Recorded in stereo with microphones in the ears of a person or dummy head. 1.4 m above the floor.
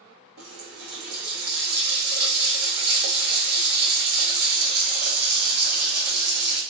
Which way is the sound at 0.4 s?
50° right (ahead or behind).